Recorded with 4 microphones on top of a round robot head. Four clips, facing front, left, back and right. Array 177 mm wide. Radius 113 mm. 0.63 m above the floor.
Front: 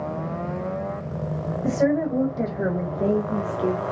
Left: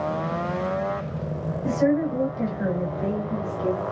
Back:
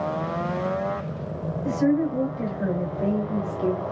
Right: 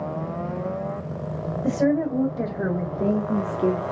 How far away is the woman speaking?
About 3 m.